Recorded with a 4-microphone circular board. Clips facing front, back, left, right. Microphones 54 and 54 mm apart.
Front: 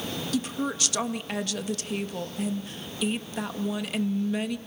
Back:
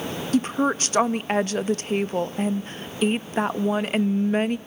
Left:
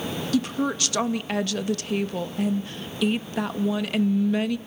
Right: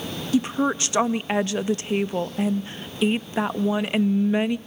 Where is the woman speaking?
150° right, 0.5 m.